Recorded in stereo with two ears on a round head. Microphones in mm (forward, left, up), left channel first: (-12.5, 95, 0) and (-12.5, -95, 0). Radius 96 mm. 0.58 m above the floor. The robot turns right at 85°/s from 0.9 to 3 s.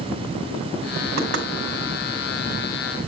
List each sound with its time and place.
1.2 s knocking: 65° right (ahead or behind), 2.5 m; by 1.5 s 45° right (ahead or behind), 2.5 m